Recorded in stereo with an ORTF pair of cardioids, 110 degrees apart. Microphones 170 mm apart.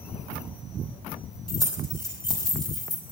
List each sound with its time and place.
1.5 s keys jangling: 25° left, 5 m